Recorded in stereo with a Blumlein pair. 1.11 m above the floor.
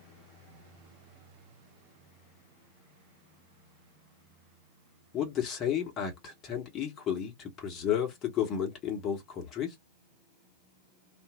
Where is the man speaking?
30° left, 1.4 m.